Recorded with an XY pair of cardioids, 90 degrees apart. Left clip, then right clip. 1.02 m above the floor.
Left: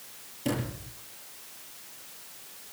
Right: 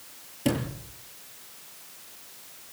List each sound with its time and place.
0.5 s a sliding door: 50° right, 8 m